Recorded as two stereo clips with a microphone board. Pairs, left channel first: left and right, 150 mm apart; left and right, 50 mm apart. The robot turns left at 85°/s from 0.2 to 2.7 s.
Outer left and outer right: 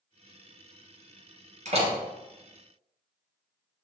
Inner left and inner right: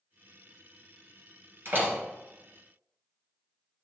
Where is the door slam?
55° right (ahead or behind), 3 m; by 1.9 s 30° right (ahead or behind), 3 m.